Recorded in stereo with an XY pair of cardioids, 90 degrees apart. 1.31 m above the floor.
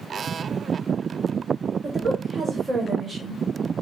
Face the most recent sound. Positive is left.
turn(degrees=-40)